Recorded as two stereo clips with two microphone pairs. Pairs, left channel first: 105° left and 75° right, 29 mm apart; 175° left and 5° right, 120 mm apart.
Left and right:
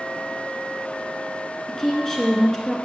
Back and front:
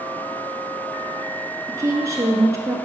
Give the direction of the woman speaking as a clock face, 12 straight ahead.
11 o'clock.